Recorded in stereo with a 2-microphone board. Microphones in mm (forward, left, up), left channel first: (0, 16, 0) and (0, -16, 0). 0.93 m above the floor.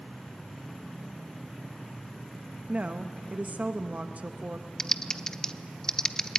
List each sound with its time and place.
2.7 s a woman speaking: 50° right (ahead or behind), 0.9 m
4.8 s typing on a keyboard: 20° left (ahead or behind), 0.6 m